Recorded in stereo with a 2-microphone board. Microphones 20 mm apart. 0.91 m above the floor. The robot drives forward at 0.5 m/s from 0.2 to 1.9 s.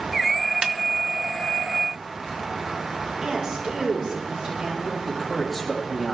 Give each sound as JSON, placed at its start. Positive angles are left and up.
{"t": 0.6, "sound": "a snare drum", "side_deg": -50, "distance_m": 1.0}
{"t": 3.2, "sound": "a woman speaking", "side_deg": -55, "distance_m": 3.5}
{"t": 5.0, "sound": "a man speaking", "side_deg": 5, "distance_m": 5.0}